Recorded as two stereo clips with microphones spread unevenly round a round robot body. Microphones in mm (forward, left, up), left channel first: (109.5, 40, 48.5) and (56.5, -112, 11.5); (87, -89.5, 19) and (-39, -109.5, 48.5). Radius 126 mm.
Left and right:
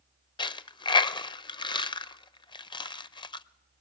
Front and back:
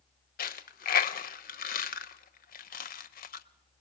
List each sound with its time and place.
0.4 s a dropped coin: 10° left, 0.5 m